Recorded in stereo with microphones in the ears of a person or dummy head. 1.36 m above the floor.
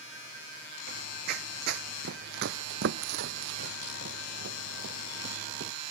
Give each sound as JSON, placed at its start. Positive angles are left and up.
{"t": 0.9, "sound": "running footsteps", "side_deg": -55}